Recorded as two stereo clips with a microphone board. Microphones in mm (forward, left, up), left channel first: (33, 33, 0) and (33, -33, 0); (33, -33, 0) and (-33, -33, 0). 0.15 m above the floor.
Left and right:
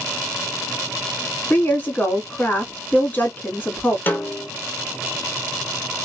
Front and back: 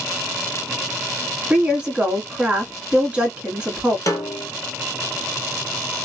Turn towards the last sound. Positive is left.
turn(degrees=30)